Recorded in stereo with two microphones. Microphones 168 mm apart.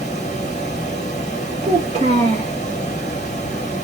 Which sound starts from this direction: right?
A child speaking, at 1.6 s.